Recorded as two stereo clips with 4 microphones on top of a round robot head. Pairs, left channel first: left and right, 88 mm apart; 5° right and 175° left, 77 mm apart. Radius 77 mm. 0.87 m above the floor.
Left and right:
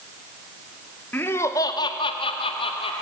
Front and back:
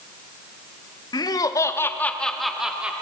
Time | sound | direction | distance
1.1 | laughter | 20° left | 1.8 m